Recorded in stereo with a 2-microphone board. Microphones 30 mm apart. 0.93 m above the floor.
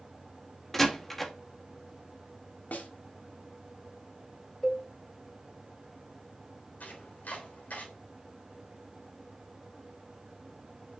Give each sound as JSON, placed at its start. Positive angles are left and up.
{"t": 0.7, "sound": "a door slam", "side_deg": 10, "distance_m": 1.3}
{"t": 2.7, "sound": "a snare drum", "side_deg": 75, "distance_m": 2.0}
{"t": 4.6, "sound": "a cowbell", "side_deg": 0, "distance_m": 1.7}
{"t": 6.8, "sound": "chopping", "side_deg": 75, "distance_m": 3.5}